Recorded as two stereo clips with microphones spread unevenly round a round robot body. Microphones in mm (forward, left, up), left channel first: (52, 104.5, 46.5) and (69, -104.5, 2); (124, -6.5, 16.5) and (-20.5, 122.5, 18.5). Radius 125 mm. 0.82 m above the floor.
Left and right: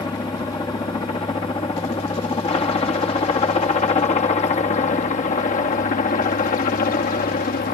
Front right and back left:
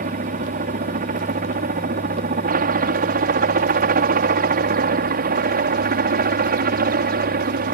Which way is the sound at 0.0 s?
170° left.